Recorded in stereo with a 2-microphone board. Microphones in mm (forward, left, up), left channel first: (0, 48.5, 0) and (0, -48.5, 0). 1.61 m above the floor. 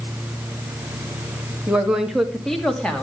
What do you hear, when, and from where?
1.7 s a woman speaking: 10° right (ahead or behind), 2.5 m; by 3.0 s 10° left (ahead or behind), 3 m